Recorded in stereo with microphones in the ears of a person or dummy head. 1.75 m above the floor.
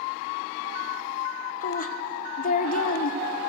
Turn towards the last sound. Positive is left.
turn(degrees=40)  # may be behind; listen again after turning